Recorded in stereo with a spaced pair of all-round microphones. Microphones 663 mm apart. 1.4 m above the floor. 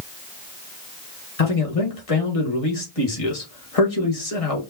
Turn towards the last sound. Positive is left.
turn(degrees=55)  # may be behind; listen again after turning